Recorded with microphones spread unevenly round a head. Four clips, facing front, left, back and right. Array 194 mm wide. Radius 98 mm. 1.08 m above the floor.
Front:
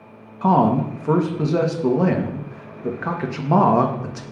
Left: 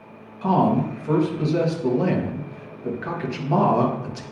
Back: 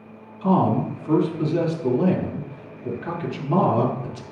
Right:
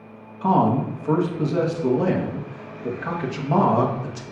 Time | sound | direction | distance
0.4 | a man speaking | 5° right | 1.0 m